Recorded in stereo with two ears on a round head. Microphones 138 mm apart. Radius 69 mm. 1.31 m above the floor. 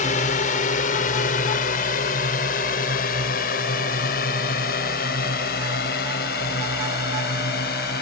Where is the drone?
55° left (ahead or behind); by 8.0 s 70° left (ahead or behind).